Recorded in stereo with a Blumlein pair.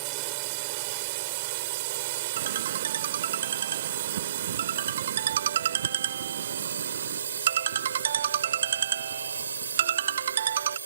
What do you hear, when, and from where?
0.0 s a drone: 45° right; by 10.9 s 80° right
2.4 s a ringtone: 65° right